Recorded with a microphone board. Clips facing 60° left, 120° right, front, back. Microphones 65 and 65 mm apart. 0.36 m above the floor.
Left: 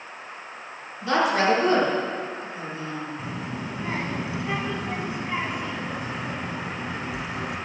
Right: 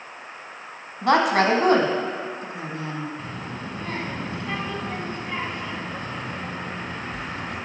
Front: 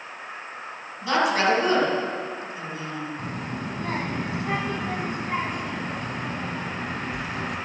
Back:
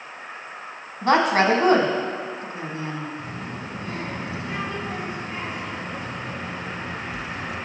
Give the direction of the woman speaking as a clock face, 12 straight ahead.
5 o'clock.